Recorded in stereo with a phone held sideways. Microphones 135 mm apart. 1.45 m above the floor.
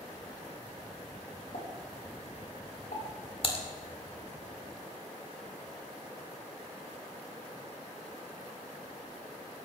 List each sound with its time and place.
1.5 s a pop: 80° left, 6 m
3.4 s typing on a keyboard: 45° left (ahead or behind), 1.9 m